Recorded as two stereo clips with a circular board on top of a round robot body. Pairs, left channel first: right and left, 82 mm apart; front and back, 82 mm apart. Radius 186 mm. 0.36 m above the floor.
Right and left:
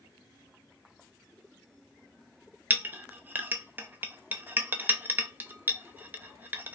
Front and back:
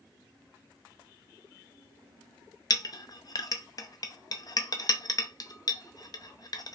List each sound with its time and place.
2.7 s a clink: 25° left, 0.6 m